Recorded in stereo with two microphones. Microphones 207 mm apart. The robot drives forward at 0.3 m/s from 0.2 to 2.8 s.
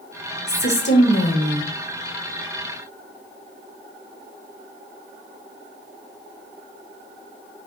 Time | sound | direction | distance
0.5 | a woman speaking | 55° left (ahead or behind) | 1.2 m